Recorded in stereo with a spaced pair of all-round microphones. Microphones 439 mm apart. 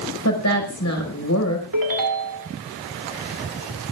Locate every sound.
0.2 s a woman speaking: 40° left (ahead or behind), 5.5 m
1.7 s a ringtone: 50° right (ahead or behind), 2 m